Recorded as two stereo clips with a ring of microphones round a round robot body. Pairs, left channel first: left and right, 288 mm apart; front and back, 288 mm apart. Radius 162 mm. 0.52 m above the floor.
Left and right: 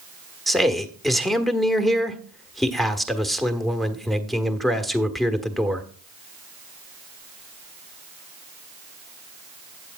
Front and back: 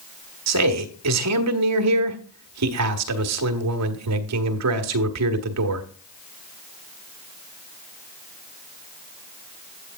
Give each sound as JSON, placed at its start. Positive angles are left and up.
{"t": 0.5, "sound": "a man speaking", "azimuth_deg": 180, "distance_m": 1.3}